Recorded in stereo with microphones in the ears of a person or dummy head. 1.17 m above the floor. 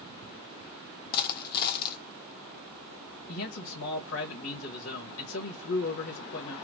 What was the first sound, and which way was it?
A dropped coin, 45° left (ahead or behind).